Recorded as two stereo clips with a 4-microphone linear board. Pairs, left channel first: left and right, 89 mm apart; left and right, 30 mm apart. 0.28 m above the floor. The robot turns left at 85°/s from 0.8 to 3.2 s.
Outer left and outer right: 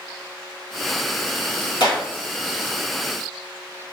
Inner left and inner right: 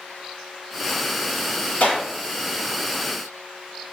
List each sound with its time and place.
1.8 s a clap: 60° left (ahead or behind), 1.8 m; by 2.0 s 50° left (ahead or behind), 1.8 m